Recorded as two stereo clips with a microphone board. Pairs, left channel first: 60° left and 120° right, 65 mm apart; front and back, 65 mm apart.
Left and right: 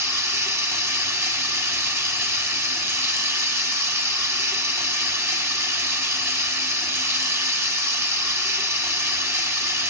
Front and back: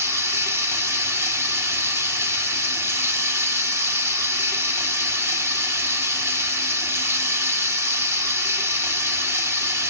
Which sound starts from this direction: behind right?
Running water, at 0.0 s.